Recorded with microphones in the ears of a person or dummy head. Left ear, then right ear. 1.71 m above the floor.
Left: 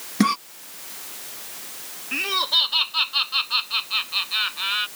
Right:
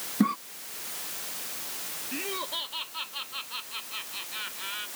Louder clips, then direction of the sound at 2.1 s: Left 13 dB; 45° left (ahead or behind).